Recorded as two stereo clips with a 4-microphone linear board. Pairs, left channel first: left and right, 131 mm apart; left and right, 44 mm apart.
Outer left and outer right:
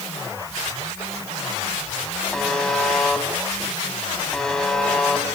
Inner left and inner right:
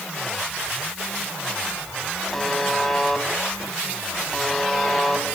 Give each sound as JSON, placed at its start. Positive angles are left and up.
{"t": 2.3, "sound": "a buzzer", "side_deg": 5, "distance_m": 1.4}